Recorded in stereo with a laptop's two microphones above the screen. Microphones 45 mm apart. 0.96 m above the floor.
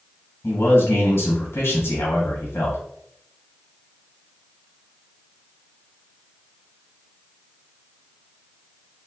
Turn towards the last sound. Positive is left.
turn(degrees=65)  # may be behind; listen again after turning